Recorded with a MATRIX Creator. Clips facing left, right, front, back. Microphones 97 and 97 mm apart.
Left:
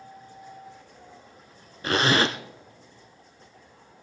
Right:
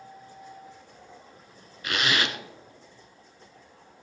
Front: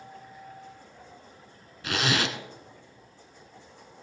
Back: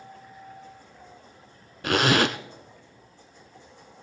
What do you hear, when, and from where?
1.8 s a zipper: 145° left, 0.6 m